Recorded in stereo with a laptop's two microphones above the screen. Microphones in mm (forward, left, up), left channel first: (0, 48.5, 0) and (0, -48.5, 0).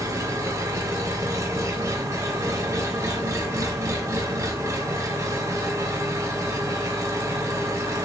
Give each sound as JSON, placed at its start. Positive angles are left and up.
{"t": 0.0, "sound": "an engine running", "side_deg": -30, "distance_m": 0.7}